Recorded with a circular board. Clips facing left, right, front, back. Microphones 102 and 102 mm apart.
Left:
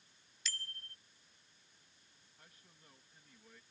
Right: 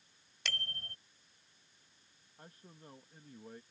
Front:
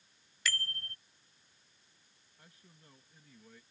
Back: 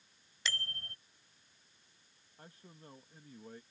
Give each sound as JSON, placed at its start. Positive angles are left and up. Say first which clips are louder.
{"t": 0.5, "sound": "a bicycle bell", "louder": "right 6 dB, front 2 dB", "azimuth_deg": -115}
{"t": 2.4, "sound": "a man speaking", "louder": "right 11 dB, back 7 dB", "azimuth_deg": -135}